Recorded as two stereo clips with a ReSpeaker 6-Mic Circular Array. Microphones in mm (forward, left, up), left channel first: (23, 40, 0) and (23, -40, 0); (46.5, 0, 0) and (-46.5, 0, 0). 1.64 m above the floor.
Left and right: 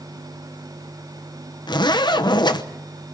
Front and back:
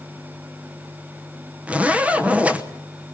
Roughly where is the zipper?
Left.